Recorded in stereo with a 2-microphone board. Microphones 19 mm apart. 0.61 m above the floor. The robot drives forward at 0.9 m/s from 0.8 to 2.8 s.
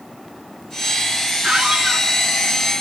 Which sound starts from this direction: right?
A squeak, at 1.4 s.